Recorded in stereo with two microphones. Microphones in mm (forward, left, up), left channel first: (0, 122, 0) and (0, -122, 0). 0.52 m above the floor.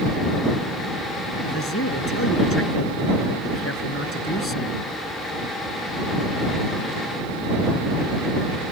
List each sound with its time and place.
1.4 s a man speaking: 65° left (ahead or behind)